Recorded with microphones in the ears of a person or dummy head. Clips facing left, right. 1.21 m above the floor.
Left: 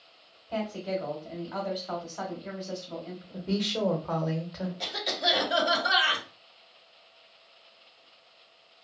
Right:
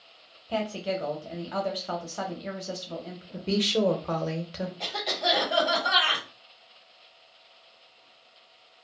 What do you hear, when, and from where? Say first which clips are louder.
0.5 s a woman speaking: right 2 dB; 45° right (ahead or behind), 0.8 m
3.3 s a woman speaking: right 4 dB; 40° right (ahead or behind), 0.7 m
4.8 s a cough: right 3 dB; 25° left (ahead or behind), 1.4 m